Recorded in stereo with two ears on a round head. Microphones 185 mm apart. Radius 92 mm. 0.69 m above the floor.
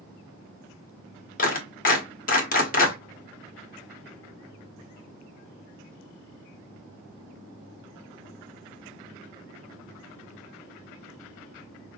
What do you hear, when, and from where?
1.4 s a clap: 45° left (ahead or behind), 1.6 m